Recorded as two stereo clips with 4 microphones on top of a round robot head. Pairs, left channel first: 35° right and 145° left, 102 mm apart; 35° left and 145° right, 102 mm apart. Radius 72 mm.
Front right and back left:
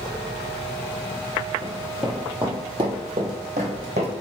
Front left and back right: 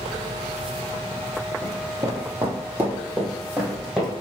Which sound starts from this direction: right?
Running footsteps, at 1.6 s.